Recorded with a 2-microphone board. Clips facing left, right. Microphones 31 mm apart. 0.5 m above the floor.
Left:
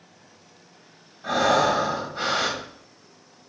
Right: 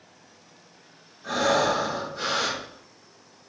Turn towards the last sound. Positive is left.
turn(degrees=40)  # may be behind; listen again after turning